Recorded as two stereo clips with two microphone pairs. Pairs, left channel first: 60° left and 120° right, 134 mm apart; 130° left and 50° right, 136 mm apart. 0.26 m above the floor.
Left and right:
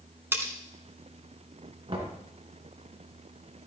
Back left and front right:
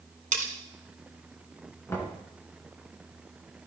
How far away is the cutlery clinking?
About 1.4 m.